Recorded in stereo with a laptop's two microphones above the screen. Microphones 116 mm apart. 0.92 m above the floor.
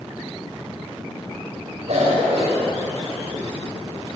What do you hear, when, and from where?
1.9 s a cough: 70° right (ahead or behind), 4.5 m